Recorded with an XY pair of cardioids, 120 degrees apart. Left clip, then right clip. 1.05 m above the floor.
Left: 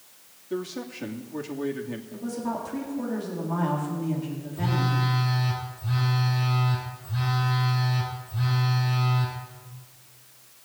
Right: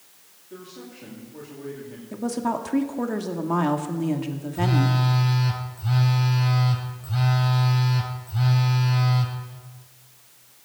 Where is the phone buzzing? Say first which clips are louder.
Right 3 dB; 50° right, 4.5 m.